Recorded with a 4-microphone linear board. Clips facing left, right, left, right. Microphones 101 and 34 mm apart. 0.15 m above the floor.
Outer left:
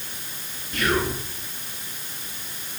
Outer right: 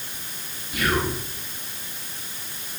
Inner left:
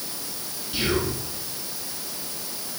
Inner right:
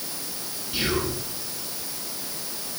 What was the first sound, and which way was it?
Whispering, 5° right (ahead or behind).